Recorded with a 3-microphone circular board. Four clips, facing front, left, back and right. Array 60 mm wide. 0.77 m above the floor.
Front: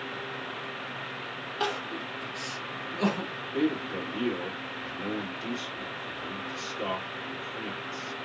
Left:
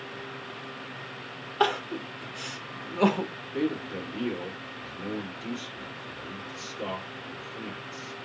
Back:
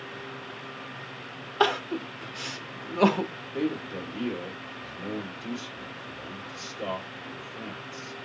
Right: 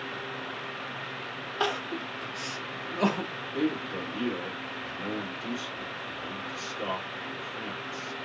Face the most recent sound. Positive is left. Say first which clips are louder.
# even, front 2 dB
turn(degrees=-10)